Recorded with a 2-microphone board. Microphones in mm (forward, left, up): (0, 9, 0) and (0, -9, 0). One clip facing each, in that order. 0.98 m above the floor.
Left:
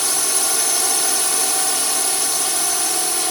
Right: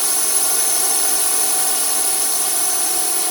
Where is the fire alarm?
No fire alarm in this recording.